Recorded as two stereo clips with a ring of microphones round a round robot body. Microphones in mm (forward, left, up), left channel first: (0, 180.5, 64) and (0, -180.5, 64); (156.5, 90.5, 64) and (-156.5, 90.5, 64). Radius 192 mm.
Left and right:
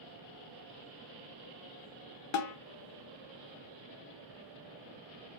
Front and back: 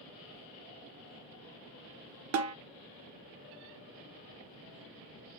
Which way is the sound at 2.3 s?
135° left.